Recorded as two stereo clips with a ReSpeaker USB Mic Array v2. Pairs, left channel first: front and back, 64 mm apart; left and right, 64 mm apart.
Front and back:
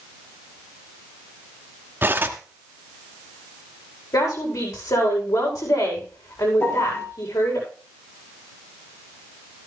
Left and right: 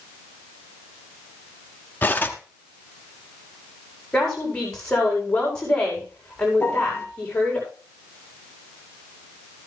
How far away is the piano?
About 2 m.